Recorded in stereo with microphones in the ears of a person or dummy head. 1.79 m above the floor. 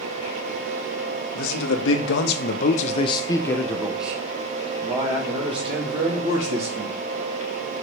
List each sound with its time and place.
1.4 s a man speaking: 80° left, 1.8 m; by 6.9 s 35° right (ahead or behind), 3.5 m